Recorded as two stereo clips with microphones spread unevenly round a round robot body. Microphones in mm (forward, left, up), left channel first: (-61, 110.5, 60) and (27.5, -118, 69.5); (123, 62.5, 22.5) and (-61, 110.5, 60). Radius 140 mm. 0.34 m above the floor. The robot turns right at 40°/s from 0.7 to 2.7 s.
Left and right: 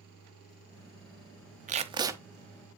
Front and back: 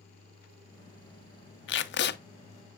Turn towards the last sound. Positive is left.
turn(degrees=35)